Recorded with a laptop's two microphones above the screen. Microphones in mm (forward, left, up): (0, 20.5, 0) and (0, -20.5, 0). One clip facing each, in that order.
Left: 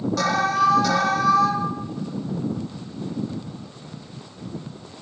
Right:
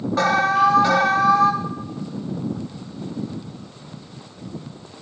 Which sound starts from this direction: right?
An alarm, at 0.2 s.